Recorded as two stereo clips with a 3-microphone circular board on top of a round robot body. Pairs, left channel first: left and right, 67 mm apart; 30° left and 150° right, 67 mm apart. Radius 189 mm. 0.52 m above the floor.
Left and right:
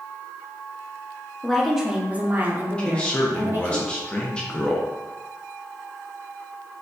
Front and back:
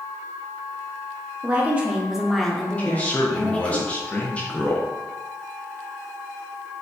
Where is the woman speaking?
170° left, 0.7 m; by 3.8 s 40° right, 1.4 m.